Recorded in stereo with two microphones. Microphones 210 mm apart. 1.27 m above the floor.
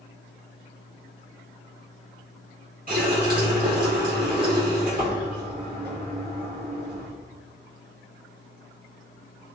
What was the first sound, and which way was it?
A running tap, 45° right (ahead or behind).